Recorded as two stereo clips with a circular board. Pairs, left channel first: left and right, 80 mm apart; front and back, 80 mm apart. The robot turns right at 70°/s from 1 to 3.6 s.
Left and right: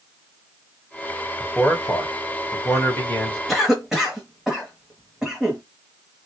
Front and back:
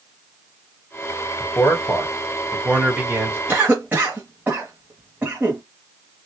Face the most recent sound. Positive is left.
turn(degrees=-170)